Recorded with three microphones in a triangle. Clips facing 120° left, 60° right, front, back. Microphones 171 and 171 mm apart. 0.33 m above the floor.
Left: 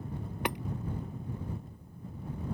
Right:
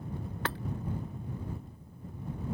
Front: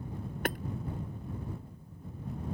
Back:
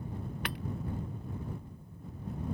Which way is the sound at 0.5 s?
45° left.